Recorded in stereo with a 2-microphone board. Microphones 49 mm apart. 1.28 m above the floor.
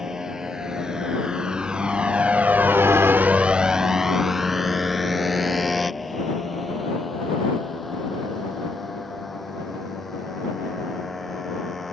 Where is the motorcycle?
10° right (ahead or behind); by 11.9 s 5° left (ahead or behind).